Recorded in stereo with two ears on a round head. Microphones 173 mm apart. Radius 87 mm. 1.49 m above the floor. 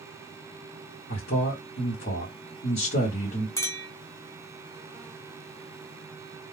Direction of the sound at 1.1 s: 45° left (ahead or behind).